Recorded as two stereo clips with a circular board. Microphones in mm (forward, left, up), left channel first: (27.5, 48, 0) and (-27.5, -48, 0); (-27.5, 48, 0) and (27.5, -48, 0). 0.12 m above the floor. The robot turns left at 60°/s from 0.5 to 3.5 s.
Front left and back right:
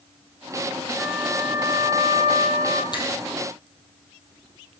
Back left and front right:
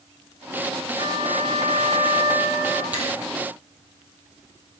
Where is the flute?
50° right, 4 m; by 2.8 s 160° right, 4 m.